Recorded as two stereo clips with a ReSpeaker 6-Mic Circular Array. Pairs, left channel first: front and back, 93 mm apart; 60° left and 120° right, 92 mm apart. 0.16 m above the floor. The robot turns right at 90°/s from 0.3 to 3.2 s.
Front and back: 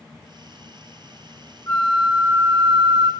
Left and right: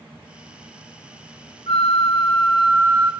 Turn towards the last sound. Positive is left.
turn(degrees=-160)